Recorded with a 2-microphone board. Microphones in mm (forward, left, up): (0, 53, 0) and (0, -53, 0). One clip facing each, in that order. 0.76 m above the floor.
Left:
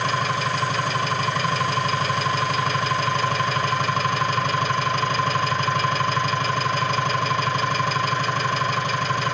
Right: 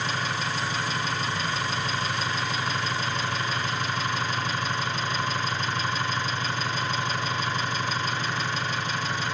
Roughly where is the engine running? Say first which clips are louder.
Left 6 dB; left.